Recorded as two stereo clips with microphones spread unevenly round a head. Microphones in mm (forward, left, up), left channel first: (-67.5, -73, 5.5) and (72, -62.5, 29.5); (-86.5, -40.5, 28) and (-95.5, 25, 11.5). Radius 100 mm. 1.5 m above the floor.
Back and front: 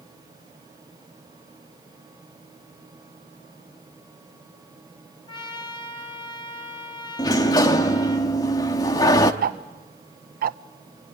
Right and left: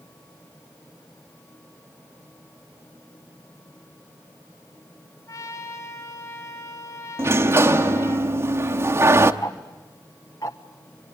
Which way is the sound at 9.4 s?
15° right.